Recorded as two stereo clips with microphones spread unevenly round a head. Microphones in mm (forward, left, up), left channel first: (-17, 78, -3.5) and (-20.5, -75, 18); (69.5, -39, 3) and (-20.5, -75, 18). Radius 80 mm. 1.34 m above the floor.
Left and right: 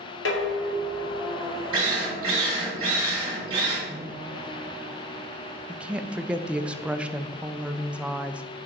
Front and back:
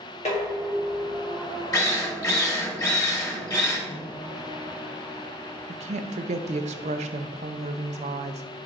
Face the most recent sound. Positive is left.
turn(degrees=-175)